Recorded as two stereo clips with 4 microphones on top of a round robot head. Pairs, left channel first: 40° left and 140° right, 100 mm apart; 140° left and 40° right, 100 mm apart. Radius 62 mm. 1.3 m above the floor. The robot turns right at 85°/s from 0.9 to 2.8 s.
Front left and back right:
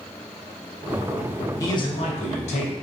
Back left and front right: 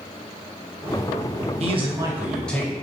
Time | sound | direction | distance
1.6 | a man speaking | 20° right | 0.9 m